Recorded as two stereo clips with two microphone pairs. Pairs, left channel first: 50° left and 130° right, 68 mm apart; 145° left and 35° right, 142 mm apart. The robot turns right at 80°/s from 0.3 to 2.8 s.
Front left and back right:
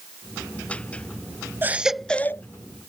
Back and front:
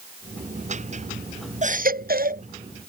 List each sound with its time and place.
1.6 s a baby crying: 70° right; by 2.4 s 5° right